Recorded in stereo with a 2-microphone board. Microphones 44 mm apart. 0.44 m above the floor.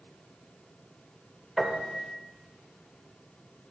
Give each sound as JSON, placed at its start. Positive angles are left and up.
{"t": 1.6, "sound": "a piano", "side_deg": 5, "distance_m": 0.9}